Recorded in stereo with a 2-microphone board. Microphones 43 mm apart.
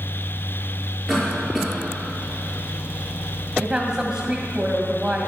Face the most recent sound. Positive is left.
turn(degrees=-15)  # may be behind; listen again after turning